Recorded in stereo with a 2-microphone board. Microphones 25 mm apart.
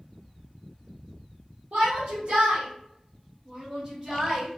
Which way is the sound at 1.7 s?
65° right (ahead or behind).